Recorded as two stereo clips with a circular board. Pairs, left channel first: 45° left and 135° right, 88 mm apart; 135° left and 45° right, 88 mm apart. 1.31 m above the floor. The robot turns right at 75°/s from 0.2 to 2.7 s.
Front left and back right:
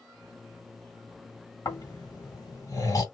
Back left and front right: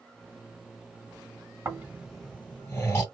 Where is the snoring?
5° left, 1.9 m; by 3.0 s 80° left, 1.9 m.